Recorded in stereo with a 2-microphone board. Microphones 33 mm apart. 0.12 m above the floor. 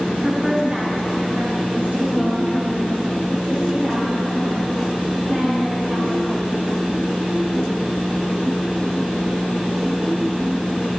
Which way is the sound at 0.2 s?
20° right (ahead or behind).